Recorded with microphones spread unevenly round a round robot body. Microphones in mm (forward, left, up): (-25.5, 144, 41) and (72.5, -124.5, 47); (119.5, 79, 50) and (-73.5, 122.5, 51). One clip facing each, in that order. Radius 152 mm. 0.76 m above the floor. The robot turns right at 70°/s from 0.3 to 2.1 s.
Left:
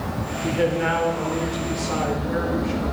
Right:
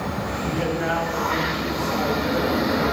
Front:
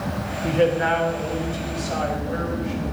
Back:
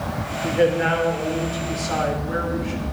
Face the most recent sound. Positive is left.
turn(degrees=-165)